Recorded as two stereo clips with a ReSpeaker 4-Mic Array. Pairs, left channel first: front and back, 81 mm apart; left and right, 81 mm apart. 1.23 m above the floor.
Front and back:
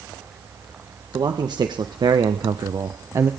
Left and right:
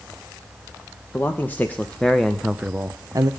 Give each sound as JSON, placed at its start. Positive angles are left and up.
{"t": 1.1, "sound": "a man speaking", "azimuth_deg": 150, "distance_m": 1.5}